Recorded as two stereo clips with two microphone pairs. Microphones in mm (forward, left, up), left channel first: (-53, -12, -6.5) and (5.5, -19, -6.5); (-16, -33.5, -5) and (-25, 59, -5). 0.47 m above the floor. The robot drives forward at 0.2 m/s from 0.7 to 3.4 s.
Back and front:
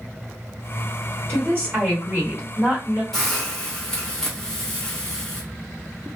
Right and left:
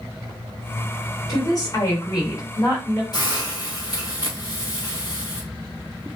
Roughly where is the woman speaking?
Ahead right.